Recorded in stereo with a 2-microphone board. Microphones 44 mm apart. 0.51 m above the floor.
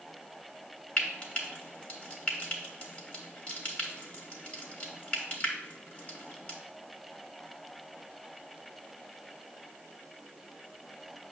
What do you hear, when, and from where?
1.0 s frying: 30° left (ahead or behind), 1.5 m